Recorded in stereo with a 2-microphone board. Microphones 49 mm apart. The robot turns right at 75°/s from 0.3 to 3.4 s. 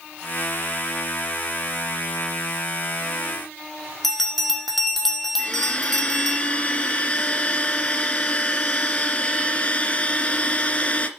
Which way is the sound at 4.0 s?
5° left (ahead or behind).